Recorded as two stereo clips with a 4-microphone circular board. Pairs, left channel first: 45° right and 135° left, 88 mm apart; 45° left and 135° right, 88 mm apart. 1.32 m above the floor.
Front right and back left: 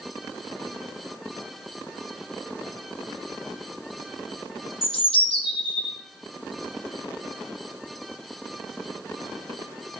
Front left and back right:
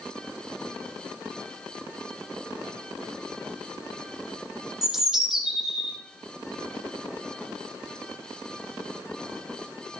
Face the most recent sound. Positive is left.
turn(degrees=-50)